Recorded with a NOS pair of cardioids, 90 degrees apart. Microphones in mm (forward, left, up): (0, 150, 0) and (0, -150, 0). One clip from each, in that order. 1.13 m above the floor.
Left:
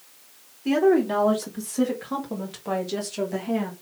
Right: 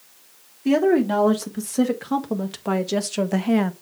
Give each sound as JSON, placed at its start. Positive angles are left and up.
{"t": 0.7, "sound": "a woman speaking", "azimuth_deg": -25, "distance_m": 2.5}